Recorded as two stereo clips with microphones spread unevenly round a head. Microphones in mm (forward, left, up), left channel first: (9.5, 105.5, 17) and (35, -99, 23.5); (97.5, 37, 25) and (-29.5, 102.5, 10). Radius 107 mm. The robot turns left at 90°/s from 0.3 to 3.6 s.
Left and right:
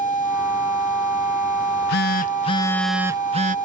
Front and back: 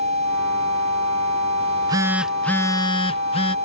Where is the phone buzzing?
120° left; by 3.5 s 55° right.